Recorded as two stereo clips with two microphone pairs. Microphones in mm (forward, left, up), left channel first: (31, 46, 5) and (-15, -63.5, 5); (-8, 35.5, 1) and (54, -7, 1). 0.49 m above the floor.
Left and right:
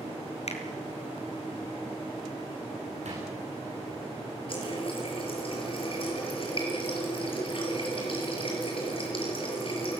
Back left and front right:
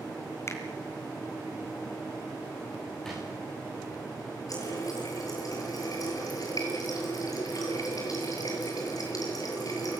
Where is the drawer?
130° right, 9.5 m.